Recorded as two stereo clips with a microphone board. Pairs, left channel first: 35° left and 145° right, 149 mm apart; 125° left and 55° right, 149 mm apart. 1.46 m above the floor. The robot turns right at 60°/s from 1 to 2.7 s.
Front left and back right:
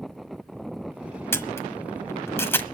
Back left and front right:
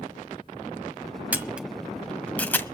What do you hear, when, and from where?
1.3 s a camera shutter: straight ahead, 1.3 m; by 2.6 s 80° left, 1.3 m